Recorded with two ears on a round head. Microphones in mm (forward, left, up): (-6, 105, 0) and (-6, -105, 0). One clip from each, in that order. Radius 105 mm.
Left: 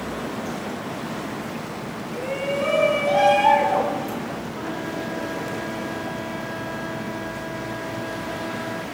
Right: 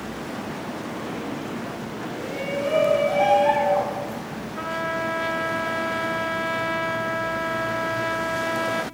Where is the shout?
85° left, 7.5 m; by 4.2 s 80° left, 8.5 m.